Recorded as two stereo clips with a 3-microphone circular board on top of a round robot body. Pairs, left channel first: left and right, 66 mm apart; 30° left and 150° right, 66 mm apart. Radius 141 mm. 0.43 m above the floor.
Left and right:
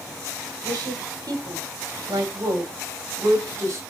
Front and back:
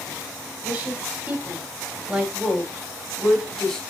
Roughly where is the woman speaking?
Right.